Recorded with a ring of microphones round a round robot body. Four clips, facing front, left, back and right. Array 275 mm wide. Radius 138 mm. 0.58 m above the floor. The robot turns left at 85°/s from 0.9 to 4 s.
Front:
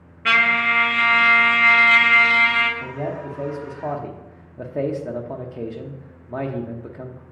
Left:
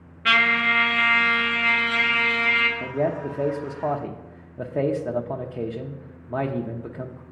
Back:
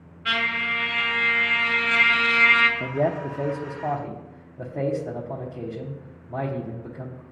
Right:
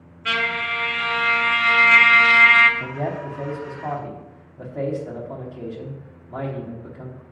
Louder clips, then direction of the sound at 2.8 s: Left 3 dB, back 4 dB; 165° left.